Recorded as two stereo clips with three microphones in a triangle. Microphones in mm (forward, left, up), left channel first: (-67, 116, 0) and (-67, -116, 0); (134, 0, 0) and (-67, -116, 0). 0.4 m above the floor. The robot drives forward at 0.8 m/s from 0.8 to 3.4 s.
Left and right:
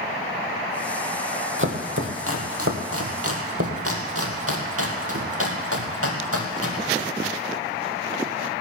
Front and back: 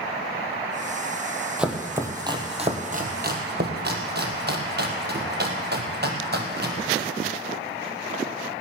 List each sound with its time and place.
1.6 s chopping: 65° right, 2 m; by 7.1 s 105° right, 2.0 m